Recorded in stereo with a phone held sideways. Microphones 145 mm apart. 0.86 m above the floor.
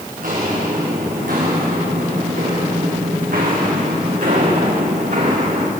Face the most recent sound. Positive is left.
turn(degrees=-60)  # may be behind; listen again after turning